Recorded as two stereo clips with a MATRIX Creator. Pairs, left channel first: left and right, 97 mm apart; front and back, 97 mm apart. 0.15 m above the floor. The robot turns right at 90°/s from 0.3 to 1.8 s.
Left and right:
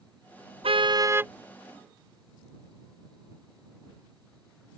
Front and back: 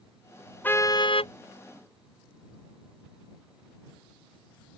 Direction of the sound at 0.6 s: 75° right.